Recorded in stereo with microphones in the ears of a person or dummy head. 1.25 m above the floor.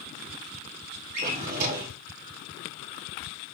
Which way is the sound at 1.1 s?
45° right (ahead or behind).